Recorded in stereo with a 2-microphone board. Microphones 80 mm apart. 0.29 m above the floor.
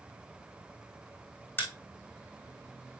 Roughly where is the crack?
Left.